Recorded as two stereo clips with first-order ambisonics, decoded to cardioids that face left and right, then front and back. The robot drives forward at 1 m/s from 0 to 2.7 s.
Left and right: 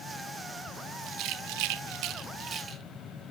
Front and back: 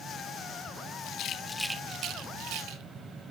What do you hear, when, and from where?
1.0 s a rattle: 40° right, 0.8 m; by 2.8 s 155° right, 1.2 m